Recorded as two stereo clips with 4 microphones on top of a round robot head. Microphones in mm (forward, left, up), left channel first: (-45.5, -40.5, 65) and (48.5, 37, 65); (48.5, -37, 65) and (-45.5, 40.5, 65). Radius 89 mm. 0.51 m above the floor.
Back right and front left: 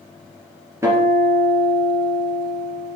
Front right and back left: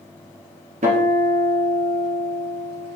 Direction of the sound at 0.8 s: 110° left.